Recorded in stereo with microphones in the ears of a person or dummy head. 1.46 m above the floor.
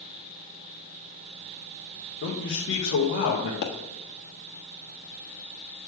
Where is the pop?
55° left (ahead or behind), 1.3 m.